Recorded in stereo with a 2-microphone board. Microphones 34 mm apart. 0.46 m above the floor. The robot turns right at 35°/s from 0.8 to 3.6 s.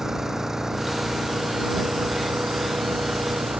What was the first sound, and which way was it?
An engine running, 165° right.